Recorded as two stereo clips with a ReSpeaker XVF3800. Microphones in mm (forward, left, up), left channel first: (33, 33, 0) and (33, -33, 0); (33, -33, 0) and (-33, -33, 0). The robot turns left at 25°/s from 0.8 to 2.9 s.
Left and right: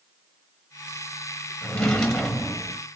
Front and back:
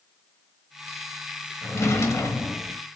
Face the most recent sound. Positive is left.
turn(degrees=-15)